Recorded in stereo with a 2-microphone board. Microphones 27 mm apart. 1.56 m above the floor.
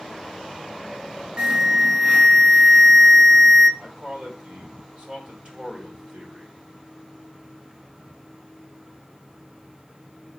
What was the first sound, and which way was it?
An alarm, 40° right (ahead or behind).